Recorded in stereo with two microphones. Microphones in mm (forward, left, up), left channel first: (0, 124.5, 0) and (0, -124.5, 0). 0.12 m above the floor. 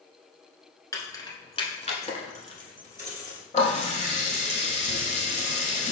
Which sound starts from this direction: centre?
Keys jangling, at 0.9 s.